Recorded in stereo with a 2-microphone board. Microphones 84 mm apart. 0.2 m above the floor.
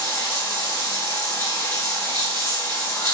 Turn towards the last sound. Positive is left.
turn(degrees=35)  # may be behind; listen again after turning